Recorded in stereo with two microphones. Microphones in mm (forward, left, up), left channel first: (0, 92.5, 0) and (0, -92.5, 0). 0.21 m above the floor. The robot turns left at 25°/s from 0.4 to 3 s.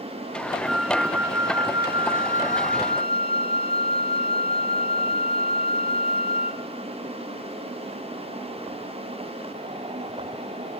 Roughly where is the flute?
Ahead.